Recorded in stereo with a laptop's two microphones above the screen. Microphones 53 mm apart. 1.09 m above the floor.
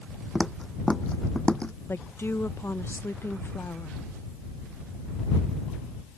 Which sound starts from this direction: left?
A woman speaking, at 1.9 s.